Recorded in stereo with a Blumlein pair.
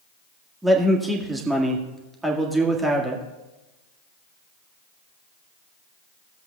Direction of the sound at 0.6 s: 10° right.